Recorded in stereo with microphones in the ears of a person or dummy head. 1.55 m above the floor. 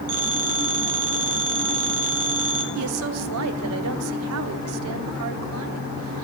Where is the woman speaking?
75° right (ahead or behind), 1.1 m.